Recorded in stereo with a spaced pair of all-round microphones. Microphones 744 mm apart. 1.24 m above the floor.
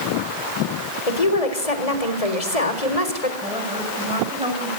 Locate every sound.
1.1 s a woman speaking: 50° left (ahead or behind), 4 m
3.4 s a woman speaking: 10° right (ahead or behind), 6 m